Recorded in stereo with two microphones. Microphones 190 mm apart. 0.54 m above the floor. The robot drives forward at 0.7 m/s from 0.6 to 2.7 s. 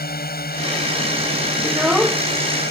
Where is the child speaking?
5° right (ahead or behind).